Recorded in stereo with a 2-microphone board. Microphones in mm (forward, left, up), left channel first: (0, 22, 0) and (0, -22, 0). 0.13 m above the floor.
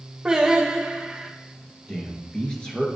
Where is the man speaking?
20° left (ahead or behind), 1.7 m.